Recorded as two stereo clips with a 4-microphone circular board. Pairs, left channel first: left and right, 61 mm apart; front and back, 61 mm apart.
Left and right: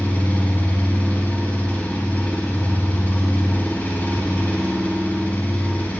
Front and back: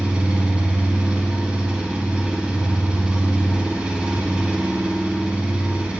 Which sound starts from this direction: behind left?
An engine running, at 0.0 s.